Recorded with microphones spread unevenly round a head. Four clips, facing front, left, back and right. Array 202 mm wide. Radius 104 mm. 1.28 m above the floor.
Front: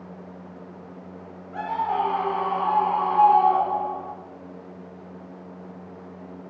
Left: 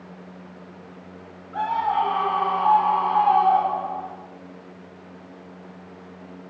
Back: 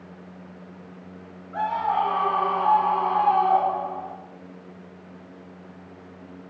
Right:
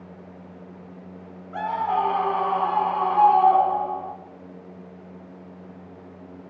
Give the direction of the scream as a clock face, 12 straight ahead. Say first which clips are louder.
Left 2 dB, back 1 dB; 2 o'clock.